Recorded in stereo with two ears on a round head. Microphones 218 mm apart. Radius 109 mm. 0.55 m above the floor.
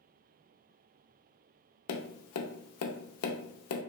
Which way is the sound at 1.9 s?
65° left (ahead or behind).